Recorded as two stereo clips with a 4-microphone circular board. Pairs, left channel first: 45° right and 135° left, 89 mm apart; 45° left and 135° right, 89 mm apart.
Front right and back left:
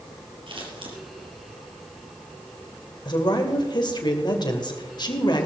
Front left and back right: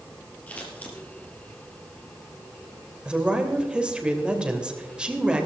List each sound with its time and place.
0.5 s scissors: 120° left, 3.5 m
3.0 s a woman speaking: 60° right, 2 m